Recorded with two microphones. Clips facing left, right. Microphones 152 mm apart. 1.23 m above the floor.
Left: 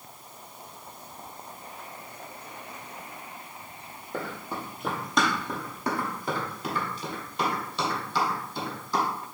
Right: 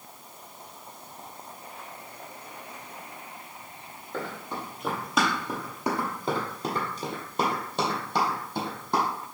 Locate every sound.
4.1 s running footsteps: 15° left (ahead or behind), 1.8 m; by 9.0 s 60° right (ahead or behind), 2.5 m